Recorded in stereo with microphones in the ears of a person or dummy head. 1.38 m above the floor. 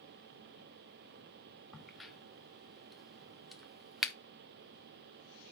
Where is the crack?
5° left (ahead or behind), 0.5 m.